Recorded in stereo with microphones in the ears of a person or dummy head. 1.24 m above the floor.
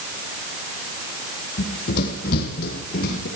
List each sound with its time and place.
1.6 s running footsteps: 60° left (ahead or behind), 2.5 m; by 3.3 s 55° left (ahead or behind), 4 m